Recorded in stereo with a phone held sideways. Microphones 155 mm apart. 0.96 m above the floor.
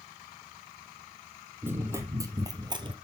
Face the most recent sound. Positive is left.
turn(degrees=-30)  # may be behind; listen again after turning